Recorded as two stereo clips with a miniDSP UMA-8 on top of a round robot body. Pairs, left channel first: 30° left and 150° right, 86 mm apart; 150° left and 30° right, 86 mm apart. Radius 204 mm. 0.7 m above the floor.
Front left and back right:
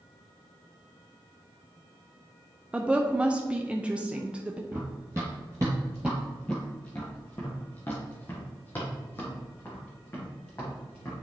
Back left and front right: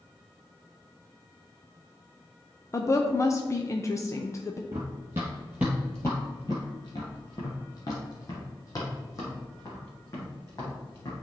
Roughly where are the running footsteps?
Right.